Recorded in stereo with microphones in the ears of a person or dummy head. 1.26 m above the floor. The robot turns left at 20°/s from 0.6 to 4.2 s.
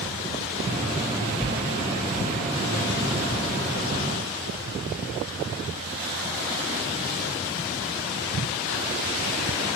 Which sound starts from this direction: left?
Tearing paper, at 1.4 s.